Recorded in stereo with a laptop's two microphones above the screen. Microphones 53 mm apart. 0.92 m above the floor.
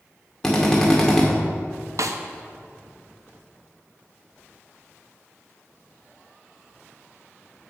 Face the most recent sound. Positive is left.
turn(degrees=-75)  # may be behind; listen again after turning